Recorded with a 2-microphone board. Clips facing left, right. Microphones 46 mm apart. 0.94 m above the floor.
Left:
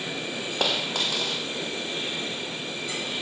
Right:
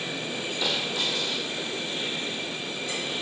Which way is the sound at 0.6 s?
65° left (ahead or behind).